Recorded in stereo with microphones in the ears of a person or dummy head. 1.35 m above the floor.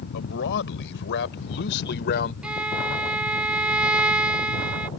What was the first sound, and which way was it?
A man speaking, 70° left (ahead or behind).